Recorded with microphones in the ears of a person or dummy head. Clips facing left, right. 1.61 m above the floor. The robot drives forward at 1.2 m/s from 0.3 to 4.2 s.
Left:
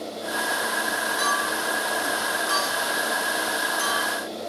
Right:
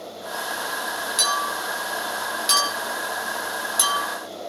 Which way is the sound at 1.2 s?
40° right (ahead or behind).